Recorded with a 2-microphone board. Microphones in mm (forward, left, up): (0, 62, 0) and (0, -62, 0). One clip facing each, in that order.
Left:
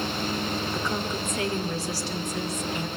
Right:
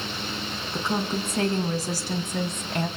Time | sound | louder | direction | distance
0.7 | a woman speaking | right 2 dB | 25° right (ahead or behind) | 3.5 m